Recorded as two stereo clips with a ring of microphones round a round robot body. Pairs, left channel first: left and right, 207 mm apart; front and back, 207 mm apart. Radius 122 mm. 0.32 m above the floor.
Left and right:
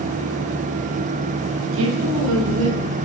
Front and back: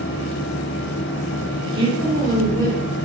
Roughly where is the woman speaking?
Right.